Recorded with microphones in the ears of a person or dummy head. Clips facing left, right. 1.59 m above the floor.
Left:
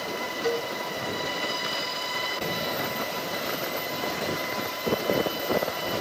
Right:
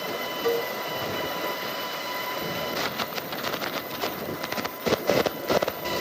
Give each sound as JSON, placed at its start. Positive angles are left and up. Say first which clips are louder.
{"t": 0.4, "sound": "a cowbell", "louder": "right 3 dB", "side_deg": 5, "distance_m": 4.0}